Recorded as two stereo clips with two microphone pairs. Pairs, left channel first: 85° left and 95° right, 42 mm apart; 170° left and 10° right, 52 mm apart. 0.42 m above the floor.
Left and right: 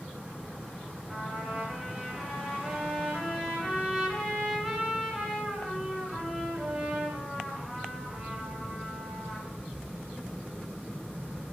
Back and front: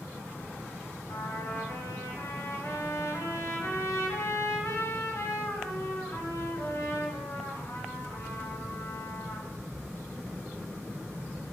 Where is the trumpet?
165° left, 1.0 m.